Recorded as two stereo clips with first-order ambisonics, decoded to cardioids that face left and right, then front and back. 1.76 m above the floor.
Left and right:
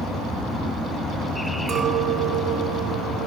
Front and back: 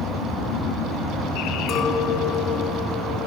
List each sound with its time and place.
1.7 s a clink: 45° right, 2.5 m